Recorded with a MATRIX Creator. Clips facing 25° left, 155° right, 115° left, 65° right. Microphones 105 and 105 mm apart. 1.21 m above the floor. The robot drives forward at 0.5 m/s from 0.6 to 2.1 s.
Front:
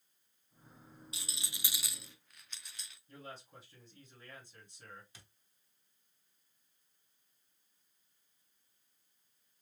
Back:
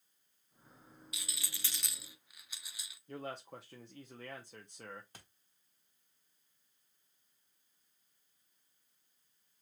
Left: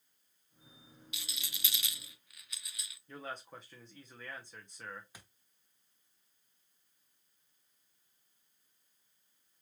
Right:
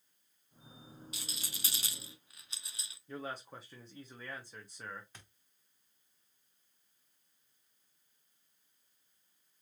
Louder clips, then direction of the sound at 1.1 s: Back 1 dB, left 1 dB; 30° right.